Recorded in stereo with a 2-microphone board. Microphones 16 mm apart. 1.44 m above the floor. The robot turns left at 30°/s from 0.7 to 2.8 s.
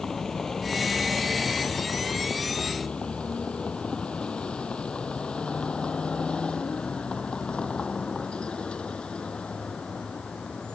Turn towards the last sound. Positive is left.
turn(degrees=85)